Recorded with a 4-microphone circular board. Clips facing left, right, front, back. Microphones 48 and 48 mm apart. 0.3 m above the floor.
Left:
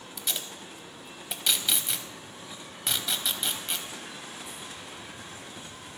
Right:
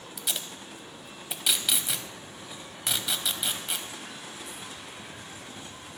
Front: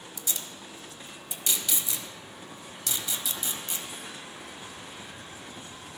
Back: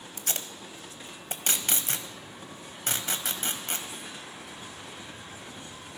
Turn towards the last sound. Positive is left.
turn(degrees=-175)